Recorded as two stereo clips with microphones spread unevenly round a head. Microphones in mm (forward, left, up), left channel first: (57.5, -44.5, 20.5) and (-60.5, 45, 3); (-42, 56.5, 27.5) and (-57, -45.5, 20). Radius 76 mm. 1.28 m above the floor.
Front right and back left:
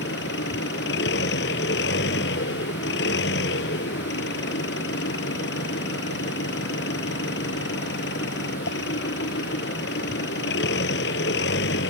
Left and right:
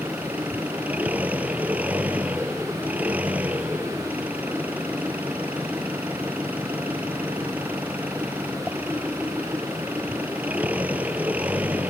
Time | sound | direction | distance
0.0 | an engine running | 15° right | ?